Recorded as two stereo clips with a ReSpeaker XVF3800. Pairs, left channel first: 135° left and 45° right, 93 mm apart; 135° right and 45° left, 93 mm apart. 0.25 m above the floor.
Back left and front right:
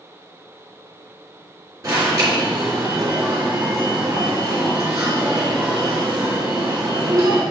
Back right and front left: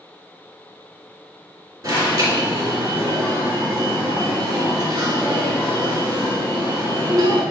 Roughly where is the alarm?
Ahead.